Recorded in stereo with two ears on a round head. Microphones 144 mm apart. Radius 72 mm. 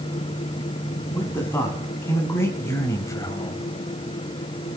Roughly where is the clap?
I don't hear a clap.